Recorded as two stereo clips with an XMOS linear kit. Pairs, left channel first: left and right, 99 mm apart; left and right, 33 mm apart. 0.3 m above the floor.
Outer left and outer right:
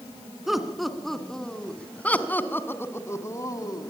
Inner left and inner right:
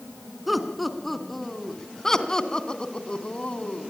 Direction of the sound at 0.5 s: 5° right (ahead or behind).